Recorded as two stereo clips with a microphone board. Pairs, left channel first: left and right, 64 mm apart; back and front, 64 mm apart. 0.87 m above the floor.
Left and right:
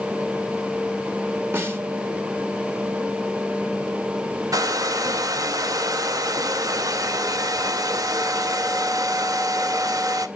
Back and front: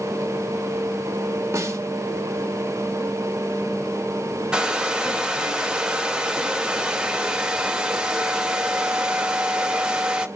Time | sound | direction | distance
1.5 | a snare drum | 40° right | 1.5 m
4.5 | a hair dryer | 80° right | 0.8 m